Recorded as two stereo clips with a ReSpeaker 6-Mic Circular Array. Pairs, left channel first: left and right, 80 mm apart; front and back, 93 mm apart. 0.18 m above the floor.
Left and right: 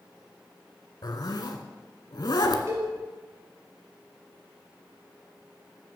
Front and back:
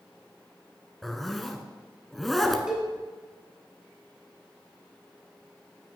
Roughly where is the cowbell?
Right.